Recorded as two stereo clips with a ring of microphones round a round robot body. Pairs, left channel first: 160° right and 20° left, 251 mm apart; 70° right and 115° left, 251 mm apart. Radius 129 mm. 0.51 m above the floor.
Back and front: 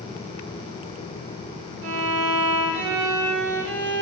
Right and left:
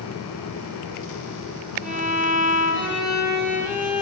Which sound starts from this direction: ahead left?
A violin, at 1.8 s.